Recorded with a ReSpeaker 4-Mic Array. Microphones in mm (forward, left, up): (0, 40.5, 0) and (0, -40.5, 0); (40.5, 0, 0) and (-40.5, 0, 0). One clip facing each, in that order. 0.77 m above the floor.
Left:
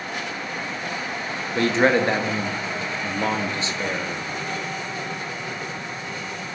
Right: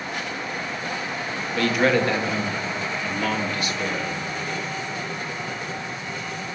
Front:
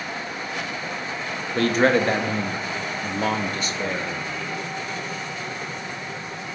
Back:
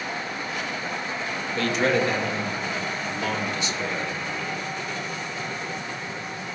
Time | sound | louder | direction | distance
1.6 | a man speaking | left 2 dB, front 4 dB | 35° left | 0.6 m